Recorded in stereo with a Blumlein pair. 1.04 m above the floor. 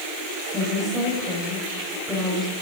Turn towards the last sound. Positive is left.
turn(degrees=15)